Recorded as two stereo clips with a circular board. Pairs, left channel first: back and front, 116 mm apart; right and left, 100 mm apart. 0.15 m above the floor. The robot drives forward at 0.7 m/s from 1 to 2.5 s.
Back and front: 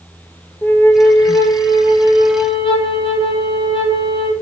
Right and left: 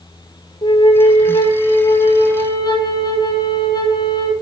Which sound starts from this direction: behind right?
A flute, at 0.6 s.